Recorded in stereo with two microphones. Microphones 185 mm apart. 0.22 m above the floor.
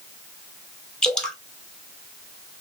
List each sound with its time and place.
1.0 s dripping: 5° left (ahead or behind), 1.2 m